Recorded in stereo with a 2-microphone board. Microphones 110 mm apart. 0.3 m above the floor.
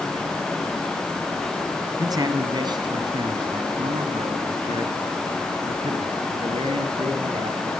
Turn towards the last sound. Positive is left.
turn(degrees=-55)  # may be behind; listen again after turning